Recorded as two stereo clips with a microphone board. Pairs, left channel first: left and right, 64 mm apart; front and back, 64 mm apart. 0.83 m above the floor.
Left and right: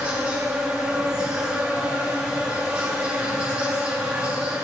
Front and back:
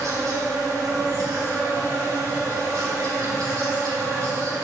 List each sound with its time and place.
0.0 s an insect: 165° right, 2.5 m